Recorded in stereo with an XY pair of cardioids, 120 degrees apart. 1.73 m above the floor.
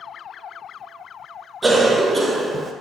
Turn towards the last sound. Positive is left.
turn(degrees=-15)